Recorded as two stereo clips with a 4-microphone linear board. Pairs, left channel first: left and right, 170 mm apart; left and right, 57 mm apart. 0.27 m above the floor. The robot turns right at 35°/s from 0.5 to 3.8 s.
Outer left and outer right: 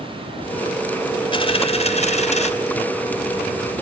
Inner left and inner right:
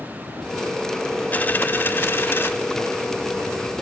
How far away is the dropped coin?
About 0.6 m.